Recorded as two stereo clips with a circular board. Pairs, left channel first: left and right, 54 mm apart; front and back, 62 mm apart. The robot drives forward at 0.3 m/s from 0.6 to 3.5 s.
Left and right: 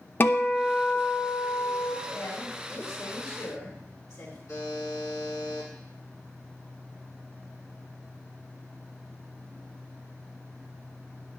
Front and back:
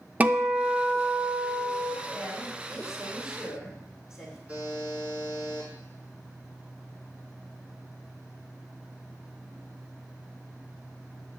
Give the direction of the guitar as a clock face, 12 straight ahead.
8 o'clock.